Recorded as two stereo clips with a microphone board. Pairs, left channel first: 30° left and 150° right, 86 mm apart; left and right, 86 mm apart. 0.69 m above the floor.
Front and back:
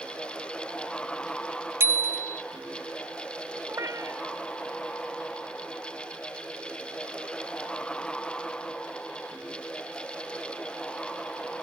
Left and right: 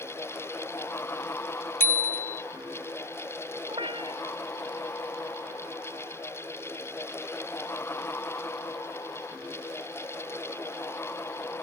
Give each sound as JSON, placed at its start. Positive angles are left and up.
{"t": 1.8, "sound": "a bicycle bell", "azimuth_deg": 150}
{"t": 3.7, "sound": "a cat meowing", "azimuth_deg": -95}